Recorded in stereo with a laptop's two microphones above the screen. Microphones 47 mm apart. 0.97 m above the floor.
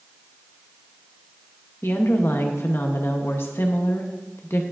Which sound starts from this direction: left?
A woman speaking, at 1.8 s.